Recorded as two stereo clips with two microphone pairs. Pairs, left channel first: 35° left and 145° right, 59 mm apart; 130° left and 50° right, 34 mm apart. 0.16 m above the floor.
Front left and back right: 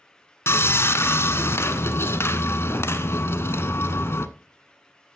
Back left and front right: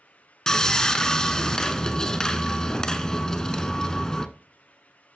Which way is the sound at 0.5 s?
60° left.